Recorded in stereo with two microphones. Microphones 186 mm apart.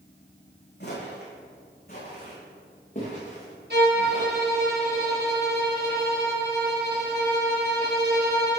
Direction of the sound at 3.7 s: 65° right (ahead or behind).